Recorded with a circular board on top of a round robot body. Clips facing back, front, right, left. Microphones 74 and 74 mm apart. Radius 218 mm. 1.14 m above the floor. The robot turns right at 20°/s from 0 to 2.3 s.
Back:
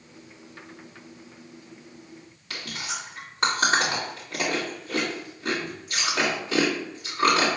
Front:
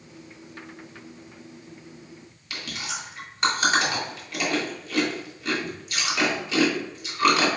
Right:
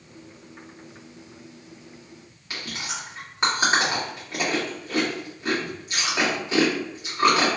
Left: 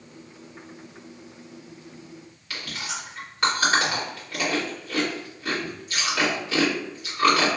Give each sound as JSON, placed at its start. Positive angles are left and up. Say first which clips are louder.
{"t": 2.5, "sound": "chewing", "louder": "even, even", "azimuth_deg": -160, "distance_m": 1.4}